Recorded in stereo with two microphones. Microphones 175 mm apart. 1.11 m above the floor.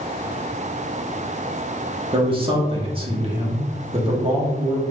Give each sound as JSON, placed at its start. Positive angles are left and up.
{"t": 2.1, "sound": "a man speaking", "side_deg": -30, "distance_m": 1.0}